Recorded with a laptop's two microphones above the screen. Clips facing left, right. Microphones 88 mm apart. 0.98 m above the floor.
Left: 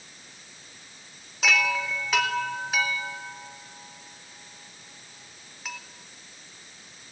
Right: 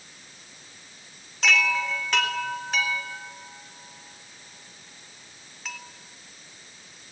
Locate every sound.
1.4 s a chime: 5° left (ahead or behind), 3.5 m